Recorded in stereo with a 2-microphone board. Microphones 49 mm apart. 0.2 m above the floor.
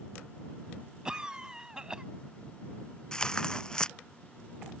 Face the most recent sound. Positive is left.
turn(degrees=15)  # may be behind; listen again after turning